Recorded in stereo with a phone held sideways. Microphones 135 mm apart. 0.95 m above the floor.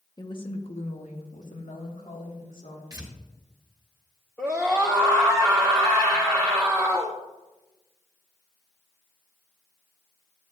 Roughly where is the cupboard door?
I don't hear a cupboard door.